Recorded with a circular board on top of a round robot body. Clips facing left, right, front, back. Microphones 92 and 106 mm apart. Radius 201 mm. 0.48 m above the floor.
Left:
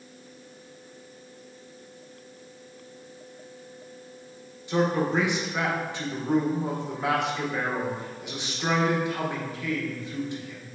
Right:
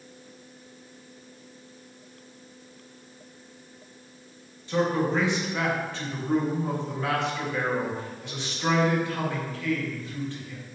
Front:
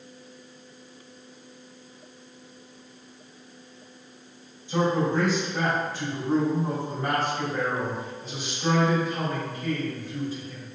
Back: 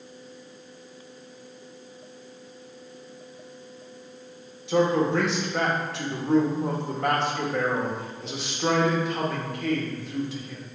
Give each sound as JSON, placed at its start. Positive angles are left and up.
{"t": 4.7, "sound": "a man speaking", "azimuth_deg": 165, "distance_m": 2.0}